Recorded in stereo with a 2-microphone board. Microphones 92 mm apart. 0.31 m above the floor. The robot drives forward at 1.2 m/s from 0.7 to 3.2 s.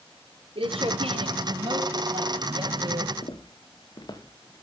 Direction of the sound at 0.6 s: 80° right.